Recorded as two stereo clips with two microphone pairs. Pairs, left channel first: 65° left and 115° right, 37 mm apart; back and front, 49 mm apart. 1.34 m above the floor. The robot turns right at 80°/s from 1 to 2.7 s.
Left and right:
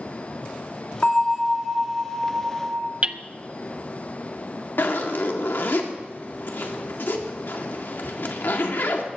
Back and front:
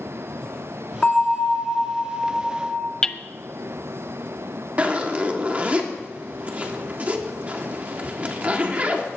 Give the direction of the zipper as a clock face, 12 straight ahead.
10 o'clock.